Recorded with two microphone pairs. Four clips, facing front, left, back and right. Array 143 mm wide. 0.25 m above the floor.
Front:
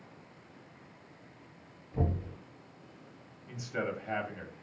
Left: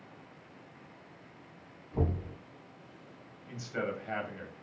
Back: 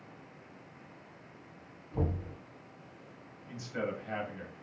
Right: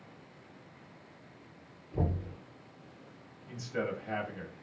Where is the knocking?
130° left, 1.6 m.